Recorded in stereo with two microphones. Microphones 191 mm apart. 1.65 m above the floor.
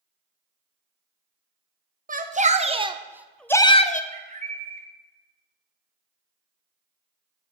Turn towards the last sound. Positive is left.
turn(degrees=-40)  # may be behind; listen again after turning